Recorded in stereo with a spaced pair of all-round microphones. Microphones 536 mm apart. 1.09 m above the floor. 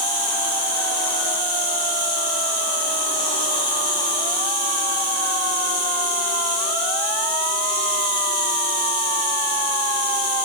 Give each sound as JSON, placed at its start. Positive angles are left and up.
{"t": 0.0, "sound": "an insect", "side_deg": -15, "distance_m": 5.0}